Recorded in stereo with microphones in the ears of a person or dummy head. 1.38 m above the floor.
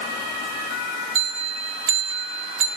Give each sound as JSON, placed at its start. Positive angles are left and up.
{"t": 1.1, "sound": "a bell", "side_deg": -70, "distance_m": 1.5}